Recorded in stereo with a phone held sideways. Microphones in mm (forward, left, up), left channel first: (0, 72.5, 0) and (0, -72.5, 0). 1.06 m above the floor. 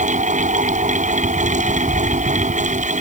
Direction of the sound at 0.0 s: 60° right (ahead or behind).